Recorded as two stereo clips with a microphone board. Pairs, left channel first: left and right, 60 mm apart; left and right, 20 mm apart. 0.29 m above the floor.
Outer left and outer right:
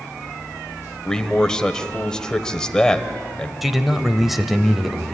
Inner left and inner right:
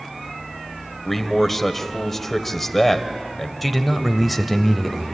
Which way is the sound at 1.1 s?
10° left (ahead or behind).